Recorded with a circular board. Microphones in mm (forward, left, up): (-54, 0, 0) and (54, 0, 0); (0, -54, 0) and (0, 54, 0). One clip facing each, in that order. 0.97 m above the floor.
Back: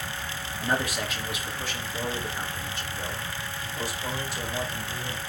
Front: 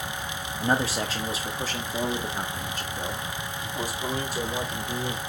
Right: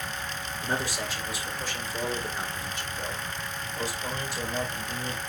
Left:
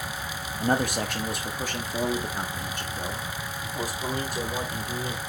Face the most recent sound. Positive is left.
turn(degrees=45)